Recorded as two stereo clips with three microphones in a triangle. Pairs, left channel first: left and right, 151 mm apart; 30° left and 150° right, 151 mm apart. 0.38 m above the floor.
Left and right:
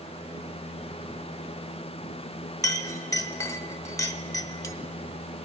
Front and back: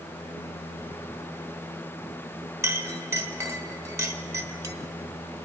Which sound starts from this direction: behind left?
A clink, at 2.6 s.